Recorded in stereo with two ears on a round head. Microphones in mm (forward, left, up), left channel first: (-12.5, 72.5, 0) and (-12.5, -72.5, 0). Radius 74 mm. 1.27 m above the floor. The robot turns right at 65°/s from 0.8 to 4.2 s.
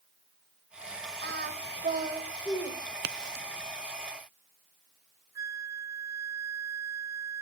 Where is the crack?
70° right (ahead or behind), 0.7 m; by 3.5 s 60° right (ahead or behind), 0.7 m.